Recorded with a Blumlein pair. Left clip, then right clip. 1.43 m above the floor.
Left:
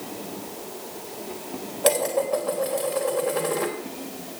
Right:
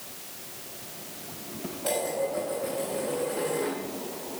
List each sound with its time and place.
1.8 s dishes clattering: 50° left, 3.5 m